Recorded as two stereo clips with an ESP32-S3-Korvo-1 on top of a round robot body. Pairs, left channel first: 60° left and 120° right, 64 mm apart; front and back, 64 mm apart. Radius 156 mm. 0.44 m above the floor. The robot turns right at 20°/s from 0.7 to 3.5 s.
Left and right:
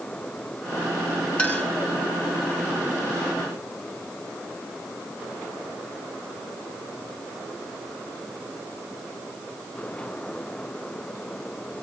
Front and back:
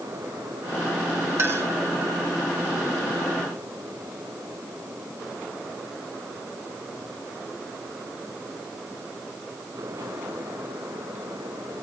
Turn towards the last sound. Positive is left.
turn(degrees=170)